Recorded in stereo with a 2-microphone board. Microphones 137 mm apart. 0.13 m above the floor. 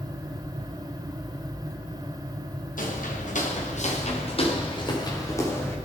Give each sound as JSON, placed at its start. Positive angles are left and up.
{"t": 2.8, "sound": "footsteps", "side_deg": 80, "distance_m": 3.0}